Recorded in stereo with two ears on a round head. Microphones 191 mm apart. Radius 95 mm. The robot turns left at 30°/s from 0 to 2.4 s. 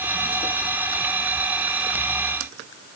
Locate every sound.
Only background noise.